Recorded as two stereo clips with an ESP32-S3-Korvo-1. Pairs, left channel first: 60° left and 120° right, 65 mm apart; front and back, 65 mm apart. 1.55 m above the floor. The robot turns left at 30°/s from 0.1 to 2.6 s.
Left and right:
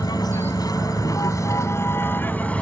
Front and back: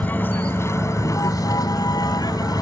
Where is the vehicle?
65° left; by 2.6 s 10° right.